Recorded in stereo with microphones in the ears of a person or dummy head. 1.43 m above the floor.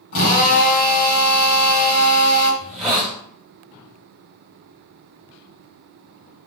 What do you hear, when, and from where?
0.1 s a drill: 65° left (ahead or behind), 3.5 m
2.6 s a hiss: centre (ahead or behind), 1.6 m